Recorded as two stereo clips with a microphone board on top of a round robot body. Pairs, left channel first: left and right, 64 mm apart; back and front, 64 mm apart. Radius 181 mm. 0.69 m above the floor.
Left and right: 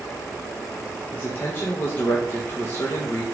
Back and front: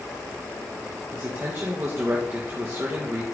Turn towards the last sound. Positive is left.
turn(degrees=40)